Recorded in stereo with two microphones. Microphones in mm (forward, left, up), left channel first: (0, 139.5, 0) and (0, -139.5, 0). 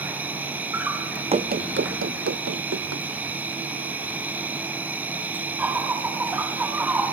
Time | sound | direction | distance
0.0 | an insect | 5° right (ahead or behind) | 2.5 m
1.3 | running footsteps | 20° right (ahead or behind) | 0.6 m